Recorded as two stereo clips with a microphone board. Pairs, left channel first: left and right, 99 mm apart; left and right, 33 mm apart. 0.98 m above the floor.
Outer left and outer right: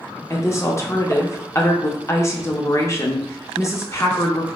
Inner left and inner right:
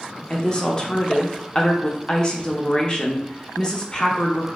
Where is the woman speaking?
25° left (ahead or behind), 0.5 m.